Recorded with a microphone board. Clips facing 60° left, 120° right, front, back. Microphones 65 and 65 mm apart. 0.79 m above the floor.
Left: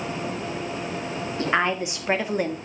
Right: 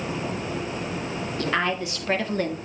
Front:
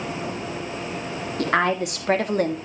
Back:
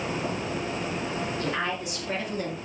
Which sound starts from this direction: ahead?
A woman speaking, at 1.4 s.